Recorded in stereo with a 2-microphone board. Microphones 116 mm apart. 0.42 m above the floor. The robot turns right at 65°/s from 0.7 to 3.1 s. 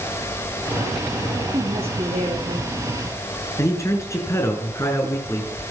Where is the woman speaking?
145° right, 10 m; by 3.0 s 50° right, 10 m.